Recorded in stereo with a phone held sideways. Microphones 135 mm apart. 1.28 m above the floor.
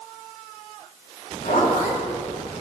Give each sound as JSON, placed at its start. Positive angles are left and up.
{"t": 1.4, "sound": "a zipper", "side_deg": 85, "distance_m": 3.0}